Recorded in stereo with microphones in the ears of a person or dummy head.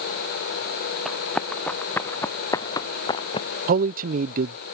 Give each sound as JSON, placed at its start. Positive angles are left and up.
{"t": 1.1, "sound": "running footsteps", "side_deg": 5}
{"t": 3.7, "sound": "a man speaking", "side_deg": -40}